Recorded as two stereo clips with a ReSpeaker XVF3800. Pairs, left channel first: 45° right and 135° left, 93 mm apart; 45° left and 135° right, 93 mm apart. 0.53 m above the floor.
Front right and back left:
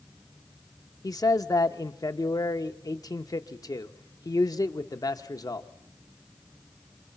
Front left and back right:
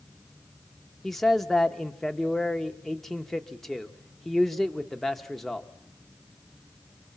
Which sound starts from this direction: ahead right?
A man speaking, at 1.0 s.